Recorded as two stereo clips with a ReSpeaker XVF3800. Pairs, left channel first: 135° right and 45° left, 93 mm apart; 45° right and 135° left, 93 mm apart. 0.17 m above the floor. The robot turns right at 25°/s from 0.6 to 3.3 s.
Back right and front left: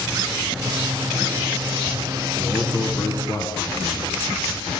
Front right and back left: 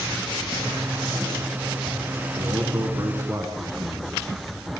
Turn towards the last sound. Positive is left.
turn(degrees=-175)